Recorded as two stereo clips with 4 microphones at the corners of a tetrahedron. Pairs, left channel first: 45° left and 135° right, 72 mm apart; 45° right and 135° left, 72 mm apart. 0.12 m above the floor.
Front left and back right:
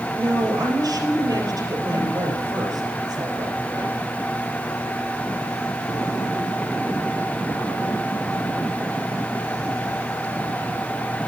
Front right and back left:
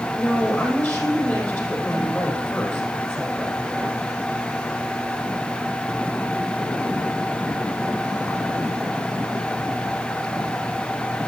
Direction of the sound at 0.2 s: 110° right.